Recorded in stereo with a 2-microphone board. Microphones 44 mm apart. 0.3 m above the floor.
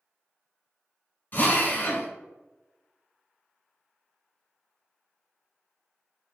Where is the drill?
40° left (ahead or behind), 1.0 m.